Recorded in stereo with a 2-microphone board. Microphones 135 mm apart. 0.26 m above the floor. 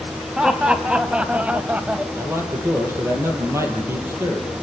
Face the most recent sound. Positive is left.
turn(degrees=-20)  # may be behind; listen again after turning